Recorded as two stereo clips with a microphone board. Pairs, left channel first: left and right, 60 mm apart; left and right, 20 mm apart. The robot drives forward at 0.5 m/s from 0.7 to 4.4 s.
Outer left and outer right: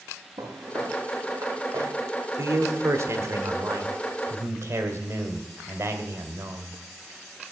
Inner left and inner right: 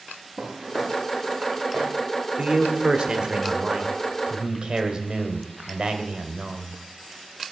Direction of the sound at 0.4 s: 65° right (ahead or behind).